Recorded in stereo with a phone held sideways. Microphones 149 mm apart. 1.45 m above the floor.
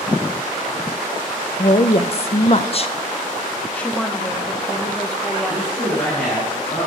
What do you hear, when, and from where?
1.6 s a woman speaking: 45° left (ahead or behind), 0.6 m
3.7 s a woman speaking: 10° left (ahead or behind), 0.8 m
5.5 s a man speaking: 15° left (ahead or behind), 5 m